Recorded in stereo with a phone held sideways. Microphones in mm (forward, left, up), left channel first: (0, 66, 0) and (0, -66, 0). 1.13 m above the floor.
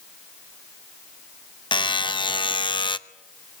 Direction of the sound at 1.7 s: 35° left (ahead or behind).